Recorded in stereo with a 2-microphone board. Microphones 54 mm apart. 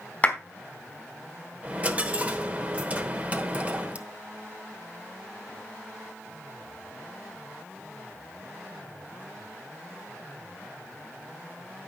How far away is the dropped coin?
About 0.9 m.